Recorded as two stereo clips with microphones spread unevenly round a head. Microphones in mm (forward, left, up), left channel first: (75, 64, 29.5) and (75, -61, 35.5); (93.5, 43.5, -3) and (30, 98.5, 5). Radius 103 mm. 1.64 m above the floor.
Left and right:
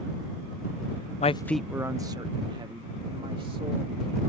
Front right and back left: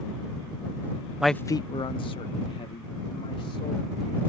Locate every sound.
1.2 s a man speaking: 60° left; by 4.3 s 45° right